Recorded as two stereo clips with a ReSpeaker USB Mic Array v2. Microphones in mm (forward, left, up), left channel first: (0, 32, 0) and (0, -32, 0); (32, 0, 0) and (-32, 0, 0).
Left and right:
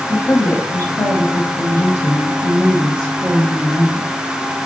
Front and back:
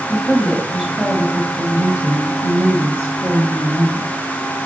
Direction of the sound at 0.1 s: 75° left.